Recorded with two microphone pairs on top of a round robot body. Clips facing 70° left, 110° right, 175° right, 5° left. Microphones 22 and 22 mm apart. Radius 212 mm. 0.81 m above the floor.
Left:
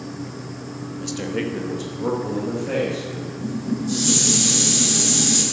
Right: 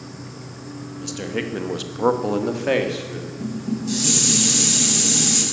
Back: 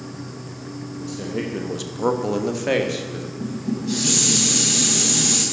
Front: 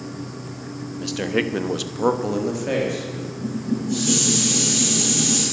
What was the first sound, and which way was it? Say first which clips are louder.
A man speaking: left 1 dB, front 6 dB; 15° right.